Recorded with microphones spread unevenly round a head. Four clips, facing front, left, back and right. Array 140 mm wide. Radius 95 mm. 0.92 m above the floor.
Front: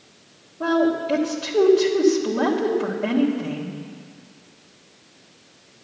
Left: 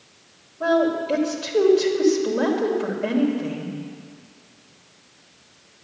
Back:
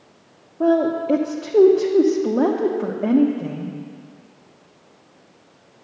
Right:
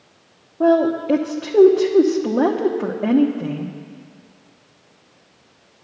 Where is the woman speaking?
130° right, 1.2 m.